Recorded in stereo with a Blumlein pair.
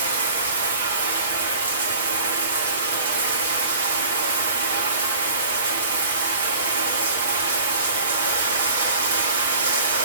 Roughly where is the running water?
Ahead right.